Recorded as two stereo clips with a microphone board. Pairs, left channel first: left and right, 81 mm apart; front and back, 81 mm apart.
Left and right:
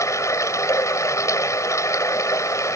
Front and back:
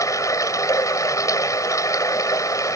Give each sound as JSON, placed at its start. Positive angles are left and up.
{"t": 0.0, "sound": "running water", "azimuth_deg": 45}